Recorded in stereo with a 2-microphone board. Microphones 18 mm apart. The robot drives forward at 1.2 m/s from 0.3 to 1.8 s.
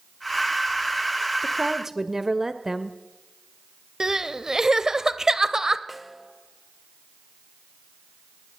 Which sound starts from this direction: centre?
A snare drum, at 5.9 s.